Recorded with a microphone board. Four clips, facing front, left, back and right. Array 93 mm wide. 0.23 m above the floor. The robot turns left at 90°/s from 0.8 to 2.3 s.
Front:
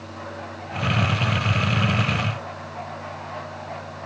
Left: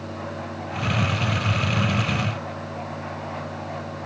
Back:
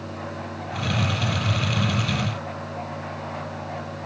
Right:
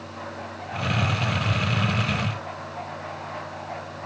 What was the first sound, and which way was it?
Only background noise.